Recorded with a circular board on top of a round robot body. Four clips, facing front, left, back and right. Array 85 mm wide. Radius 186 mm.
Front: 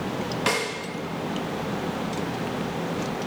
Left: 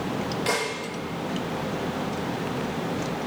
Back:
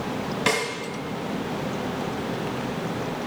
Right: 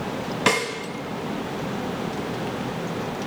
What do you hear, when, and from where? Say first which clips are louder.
0.5 s a snare drum: right 6 dB, back 2 dB; 90° right, 1.5 m